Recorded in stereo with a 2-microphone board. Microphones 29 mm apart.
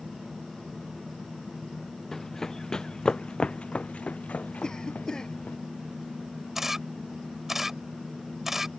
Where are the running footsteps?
15° left (ahead or behind); by 5.6 s 75° left (ahead or behind).